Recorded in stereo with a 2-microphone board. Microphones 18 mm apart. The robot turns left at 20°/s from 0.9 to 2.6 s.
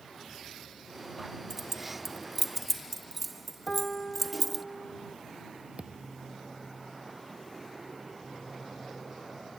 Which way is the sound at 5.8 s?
70° right (ahead or behind).